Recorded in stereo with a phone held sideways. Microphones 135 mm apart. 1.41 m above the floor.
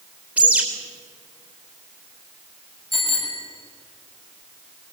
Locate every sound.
0.4 s a bird: 10° right (ahead or behind), 3.5 m
2.9 s a bicycle bell: 40° left (ahead or behind), 6 m